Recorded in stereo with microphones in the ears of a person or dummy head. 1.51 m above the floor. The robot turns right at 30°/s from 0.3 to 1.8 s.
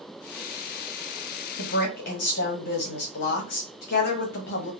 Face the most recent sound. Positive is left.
turn(degrees=55)  # may be behind; listen again after turning